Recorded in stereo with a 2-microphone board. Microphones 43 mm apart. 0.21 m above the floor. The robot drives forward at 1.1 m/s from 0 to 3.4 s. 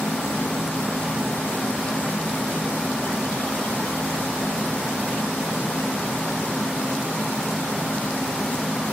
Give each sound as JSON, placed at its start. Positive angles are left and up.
{"t": 0.0, "sound": "an insect", "side_deg": 50}